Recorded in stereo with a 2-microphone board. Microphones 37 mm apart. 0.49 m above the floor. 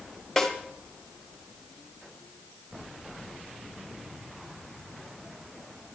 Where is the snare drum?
5° left (ahead or behind), 1.4 m.